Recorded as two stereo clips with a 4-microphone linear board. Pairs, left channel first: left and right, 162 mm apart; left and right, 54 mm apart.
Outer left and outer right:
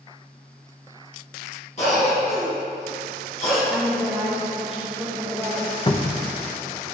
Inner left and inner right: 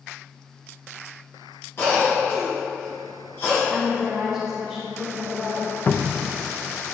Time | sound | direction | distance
1.8 | a cough | 45° left (ahead or behind) | 1.9 m
3.7 | a woman speaking | centre (ahead or behind) | 1.8 m
5.9 | a cupboard door | 30° left (ahead or behind) | 0.5 m